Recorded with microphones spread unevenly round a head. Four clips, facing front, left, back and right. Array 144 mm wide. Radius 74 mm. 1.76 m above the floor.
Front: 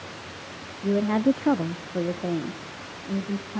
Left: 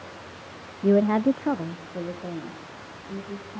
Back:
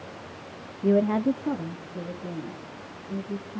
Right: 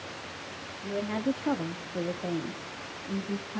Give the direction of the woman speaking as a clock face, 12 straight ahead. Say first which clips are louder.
Left 11 dB, even; 9 o'clock.